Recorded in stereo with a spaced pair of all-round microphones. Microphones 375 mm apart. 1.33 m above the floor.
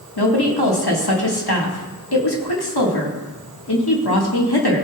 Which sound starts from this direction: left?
A woman speaking, at 0.2 s.